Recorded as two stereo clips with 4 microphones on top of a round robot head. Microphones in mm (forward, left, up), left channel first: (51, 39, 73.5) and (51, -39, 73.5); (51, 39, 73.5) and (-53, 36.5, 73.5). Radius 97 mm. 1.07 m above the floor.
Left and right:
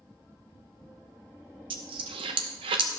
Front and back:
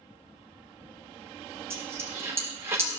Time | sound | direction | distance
1.7 | a dropped coin | 110° right | 0.6 m